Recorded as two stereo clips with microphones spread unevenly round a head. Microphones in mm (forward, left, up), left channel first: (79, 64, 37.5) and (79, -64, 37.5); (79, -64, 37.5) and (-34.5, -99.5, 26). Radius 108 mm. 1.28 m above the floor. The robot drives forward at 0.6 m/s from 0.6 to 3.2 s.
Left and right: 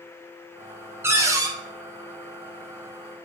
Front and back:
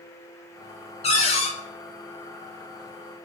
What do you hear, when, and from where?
1.0 s a cupboard door: 15° right, 0.8 m; by 1.5 s 25° right, 0.5 m